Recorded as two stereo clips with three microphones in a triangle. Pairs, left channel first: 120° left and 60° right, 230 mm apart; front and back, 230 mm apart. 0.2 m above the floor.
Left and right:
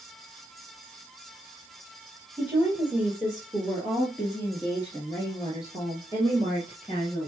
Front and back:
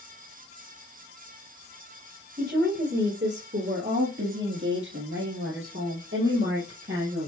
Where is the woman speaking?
140° right, 3.5 m; by 7.3 s straight behind, 4 m.